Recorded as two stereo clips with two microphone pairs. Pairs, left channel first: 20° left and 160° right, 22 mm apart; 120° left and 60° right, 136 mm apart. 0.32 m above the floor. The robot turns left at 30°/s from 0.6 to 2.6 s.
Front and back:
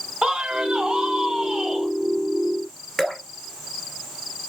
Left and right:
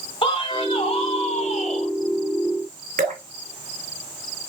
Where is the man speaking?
165° left, 3 m; by 1.9 s 125° left, 3 m.